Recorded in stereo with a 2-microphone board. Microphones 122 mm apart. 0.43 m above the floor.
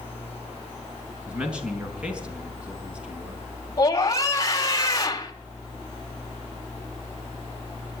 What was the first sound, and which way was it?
A man speaking, 10° right (ahead or behind).